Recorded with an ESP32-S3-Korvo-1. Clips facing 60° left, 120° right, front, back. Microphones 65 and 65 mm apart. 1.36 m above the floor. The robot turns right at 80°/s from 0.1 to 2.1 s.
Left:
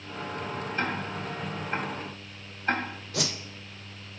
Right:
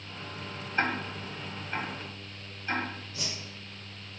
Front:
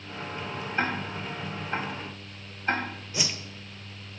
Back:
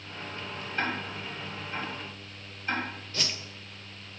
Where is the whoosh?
75° left, 0.5 m.